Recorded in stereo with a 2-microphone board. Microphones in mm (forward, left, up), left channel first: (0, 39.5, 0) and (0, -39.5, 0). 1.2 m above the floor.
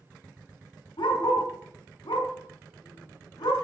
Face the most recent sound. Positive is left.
turn(degrees=80)